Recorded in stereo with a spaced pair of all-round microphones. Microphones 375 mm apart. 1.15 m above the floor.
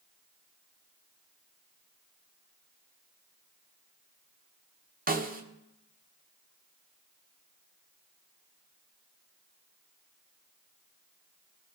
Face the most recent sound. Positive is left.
turn(degrees=-25)  # may be behind; listen again after turning